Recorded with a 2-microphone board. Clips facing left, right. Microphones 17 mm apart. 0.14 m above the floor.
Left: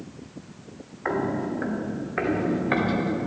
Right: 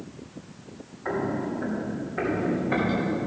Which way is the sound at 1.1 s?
85° left.